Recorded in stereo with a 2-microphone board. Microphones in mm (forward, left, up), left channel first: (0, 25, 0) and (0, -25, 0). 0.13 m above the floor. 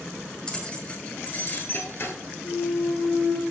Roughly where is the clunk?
Left.